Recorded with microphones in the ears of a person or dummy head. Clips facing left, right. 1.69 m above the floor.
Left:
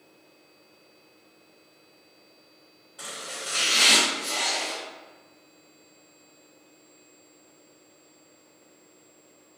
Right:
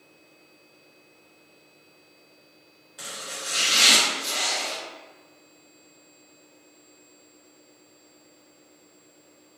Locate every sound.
3.0 s chopping: 10° right (ahead or behind), 0.9 m